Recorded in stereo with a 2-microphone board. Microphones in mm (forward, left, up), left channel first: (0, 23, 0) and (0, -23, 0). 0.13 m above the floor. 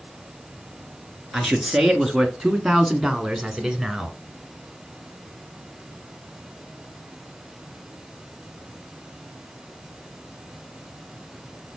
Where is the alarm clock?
I don't hear an alarm clock.